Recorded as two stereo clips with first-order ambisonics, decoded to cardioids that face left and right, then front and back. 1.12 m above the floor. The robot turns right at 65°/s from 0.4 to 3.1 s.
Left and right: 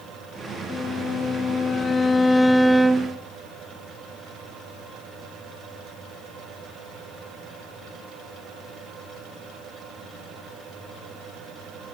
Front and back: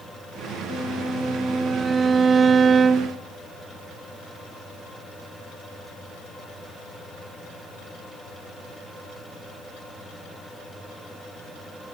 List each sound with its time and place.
0.7 s a violin: 55° left, 0.6 m; by 3.2 s 150° right, 0.6 m